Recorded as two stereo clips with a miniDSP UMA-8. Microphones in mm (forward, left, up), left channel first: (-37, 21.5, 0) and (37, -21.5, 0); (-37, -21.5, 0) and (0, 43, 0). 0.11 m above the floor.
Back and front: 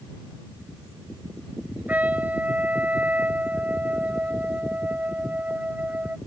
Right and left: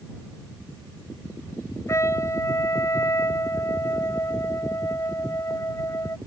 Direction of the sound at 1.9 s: 95° right.